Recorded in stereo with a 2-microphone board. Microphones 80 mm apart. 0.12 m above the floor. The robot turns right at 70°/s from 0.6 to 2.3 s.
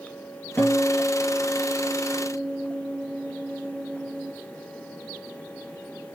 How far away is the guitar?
About 2.5 m.